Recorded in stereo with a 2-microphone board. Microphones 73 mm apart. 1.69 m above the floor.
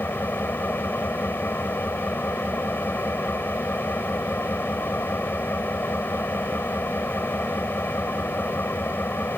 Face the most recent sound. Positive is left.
turn(degrees=25)  # may be behind; listen again after turning